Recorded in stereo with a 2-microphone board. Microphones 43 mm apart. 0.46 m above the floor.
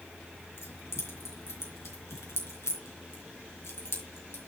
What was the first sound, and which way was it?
Keys jangling, 70° left (ahead or behind).